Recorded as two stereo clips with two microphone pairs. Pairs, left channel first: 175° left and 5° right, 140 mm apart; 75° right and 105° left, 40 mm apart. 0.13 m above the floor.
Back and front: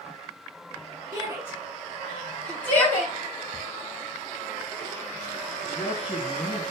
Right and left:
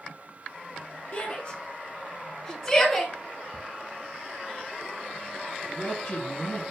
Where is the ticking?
145° left, 3 m.